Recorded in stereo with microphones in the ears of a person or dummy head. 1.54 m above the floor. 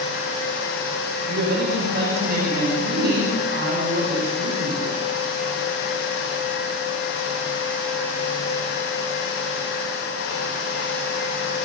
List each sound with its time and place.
1.3 s a woman speaking: 50° right (ahead or behind), 6.5 m